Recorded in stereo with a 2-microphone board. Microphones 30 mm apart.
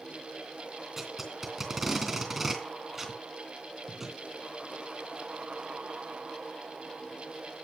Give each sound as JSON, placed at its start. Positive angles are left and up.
{"t": 1.0, "sound": "tape being pulled", "side_deg": -5, "distance_m": 2.5}